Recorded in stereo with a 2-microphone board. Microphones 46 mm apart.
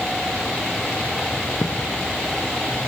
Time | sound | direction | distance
1.6 | a thud | 75° left (ahead or behind) | 2.5 m